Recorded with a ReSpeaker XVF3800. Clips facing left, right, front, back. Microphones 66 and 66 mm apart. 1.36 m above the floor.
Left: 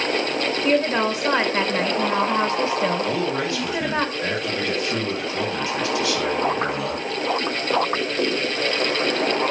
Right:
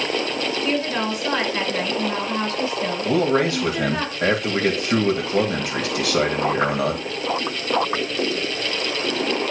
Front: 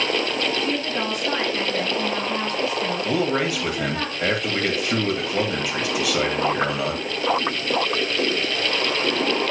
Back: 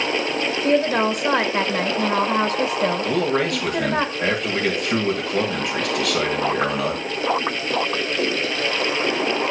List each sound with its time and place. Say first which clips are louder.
0.6 s a woman speaking: left 5 dB, back 7 dB; 150° left, 1.2 m
3.0 s a man speaking: right 4 dB, back 1 dB; 85° right, 2.5 m